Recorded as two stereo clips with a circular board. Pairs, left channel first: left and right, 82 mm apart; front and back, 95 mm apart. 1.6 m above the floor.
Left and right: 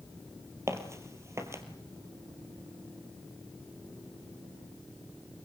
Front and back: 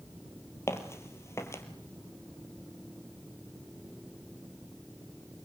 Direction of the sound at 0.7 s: 50° right.